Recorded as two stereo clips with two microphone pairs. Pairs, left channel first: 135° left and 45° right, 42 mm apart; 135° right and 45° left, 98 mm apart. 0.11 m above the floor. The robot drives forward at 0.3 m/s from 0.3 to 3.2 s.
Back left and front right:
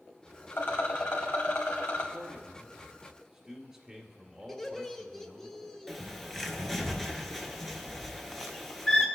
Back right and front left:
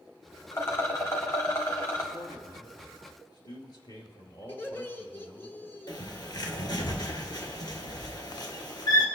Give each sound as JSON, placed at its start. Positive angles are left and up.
{"t": 0.5, "sound": "a rattle", "azimuth_deg": 165, "distance_m": 2.5}
{"t": 2.1, "sound": "a man speaking", "azimuth_deg": -115, "distance_m": 1.9}
{"t": 4.5, "sound": "laughter", "azimuth_deg": -165, "distance_m": 1.5}
{"t": 5.9, "sound": "a bird", "azimuth_deg": -145, "distance_m": 1.4}